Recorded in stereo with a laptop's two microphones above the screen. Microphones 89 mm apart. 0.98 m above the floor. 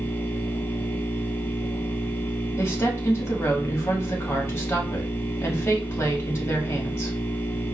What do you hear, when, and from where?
0.0 s a machine running: 25° left (ahead or behind), 0.9 m
2.6 s a woman speaking: 30° left (ahead or behind), 1.8 m